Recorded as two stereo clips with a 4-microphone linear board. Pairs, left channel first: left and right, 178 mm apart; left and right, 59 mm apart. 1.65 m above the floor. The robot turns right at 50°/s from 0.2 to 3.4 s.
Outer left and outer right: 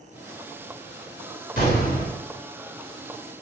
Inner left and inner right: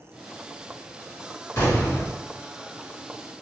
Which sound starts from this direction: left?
An explosion, at 1.6 s.